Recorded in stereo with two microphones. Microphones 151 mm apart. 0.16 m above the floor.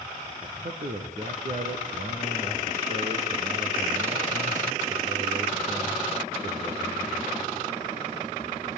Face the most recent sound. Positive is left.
turn(degrees=-60)  # may be behind; listen again after turning